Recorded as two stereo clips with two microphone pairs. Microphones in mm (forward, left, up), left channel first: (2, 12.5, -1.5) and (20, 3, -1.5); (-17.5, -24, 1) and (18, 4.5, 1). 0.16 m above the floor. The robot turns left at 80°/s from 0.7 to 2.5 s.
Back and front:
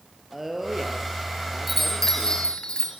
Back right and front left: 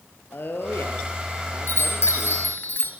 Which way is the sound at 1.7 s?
110° right.